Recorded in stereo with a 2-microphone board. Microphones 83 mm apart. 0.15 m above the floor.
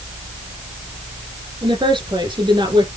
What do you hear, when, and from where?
1.6 s a woman speaking: 75° right (ahead or behind), 6 m